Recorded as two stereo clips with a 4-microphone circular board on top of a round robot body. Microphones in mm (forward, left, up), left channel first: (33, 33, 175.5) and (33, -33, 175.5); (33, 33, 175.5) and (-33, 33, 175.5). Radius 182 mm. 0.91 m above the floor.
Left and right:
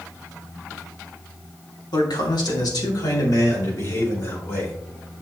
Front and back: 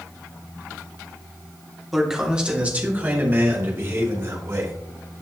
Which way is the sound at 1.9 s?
95° left.